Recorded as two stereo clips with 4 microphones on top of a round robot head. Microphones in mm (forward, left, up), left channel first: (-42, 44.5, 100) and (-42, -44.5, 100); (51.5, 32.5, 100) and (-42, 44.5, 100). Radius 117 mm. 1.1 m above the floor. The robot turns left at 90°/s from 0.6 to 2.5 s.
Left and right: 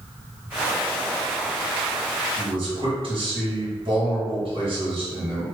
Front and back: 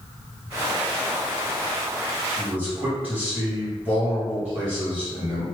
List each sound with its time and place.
2.4 s a man speaking: 100° right, 1.8 m; by 5.5 s 115° right, 1.8 m